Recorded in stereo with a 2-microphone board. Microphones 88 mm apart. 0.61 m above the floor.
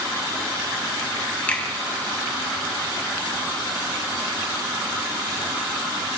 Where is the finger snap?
15° left (ahead or behind), 3.5 m.